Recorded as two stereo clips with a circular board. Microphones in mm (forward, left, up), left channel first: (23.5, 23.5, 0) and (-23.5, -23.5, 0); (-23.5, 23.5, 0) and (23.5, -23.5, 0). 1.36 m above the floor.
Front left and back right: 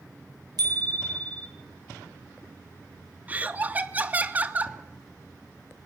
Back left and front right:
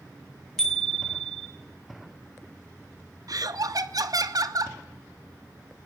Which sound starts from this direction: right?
Laughter, at 3.3 s.